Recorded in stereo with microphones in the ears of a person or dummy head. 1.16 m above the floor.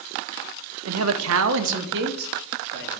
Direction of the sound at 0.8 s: 75° right (ahead or behind).